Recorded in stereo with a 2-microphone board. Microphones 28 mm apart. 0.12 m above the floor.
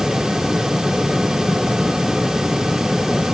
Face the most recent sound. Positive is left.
No sound to turn to.